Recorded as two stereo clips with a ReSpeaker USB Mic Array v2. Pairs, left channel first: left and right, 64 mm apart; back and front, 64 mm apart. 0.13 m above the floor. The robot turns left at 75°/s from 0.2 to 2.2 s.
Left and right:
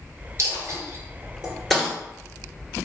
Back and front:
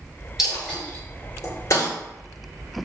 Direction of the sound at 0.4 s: 80° right.